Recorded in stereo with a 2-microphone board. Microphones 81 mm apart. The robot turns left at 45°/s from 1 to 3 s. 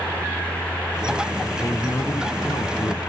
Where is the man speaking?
145° left; by 3.0 s 85° left.